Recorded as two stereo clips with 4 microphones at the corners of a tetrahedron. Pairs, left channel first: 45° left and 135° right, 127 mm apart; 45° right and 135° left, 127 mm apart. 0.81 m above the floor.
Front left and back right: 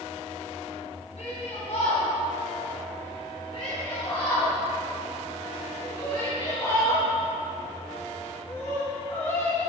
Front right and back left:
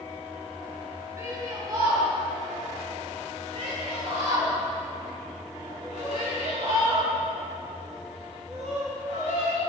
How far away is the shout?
About 5 m.